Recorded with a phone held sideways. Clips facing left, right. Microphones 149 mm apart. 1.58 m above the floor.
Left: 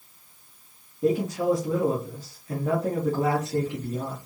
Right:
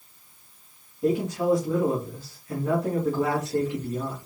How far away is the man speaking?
About 2 m.